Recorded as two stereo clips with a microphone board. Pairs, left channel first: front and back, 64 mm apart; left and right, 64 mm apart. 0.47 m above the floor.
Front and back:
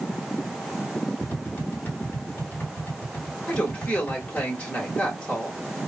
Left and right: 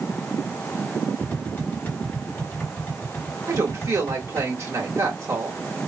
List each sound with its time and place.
1.2 s tapping: 40° left, 1.7 m
3.5 s a woman speaking: 65° right, 1.6 m